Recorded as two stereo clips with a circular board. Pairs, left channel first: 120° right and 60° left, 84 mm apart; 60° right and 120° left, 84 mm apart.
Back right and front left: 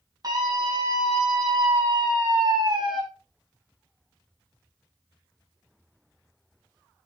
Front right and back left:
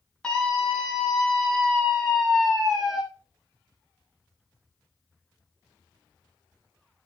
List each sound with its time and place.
0.2 s a scream: 20° left, 7.5 m; by 3.0 s 35° left, 6.5 m